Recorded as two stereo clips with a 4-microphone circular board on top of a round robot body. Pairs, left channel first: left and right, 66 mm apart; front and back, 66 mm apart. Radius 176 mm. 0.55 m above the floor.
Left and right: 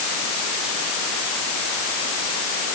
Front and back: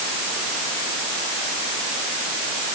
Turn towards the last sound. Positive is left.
No sound to turn to.